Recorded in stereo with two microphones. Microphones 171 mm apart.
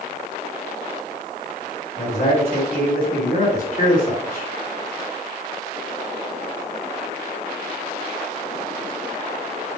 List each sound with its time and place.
2.0 s a man speaking: 60° left (ahead or behind), 3 m